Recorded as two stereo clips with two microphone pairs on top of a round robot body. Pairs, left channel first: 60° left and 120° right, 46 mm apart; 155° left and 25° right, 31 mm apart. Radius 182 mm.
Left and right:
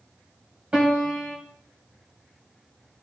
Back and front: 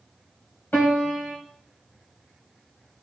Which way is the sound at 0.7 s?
170° left.